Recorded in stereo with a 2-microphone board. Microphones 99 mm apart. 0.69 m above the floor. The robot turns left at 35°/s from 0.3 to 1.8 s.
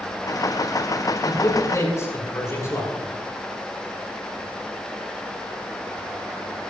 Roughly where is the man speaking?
Left.